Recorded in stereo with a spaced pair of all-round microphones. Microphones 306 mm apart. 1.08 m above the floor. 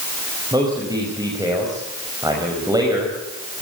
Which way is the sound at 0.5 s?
10° right (ahead or behind).